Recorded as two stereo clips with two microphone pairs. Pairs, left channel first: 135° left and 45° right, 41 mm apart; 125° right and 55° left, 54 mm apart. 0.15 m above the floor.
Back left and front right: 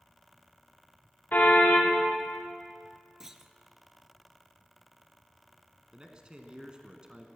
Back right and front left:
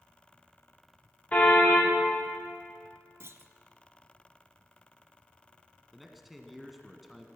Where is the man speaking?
35° right, 1.4 m.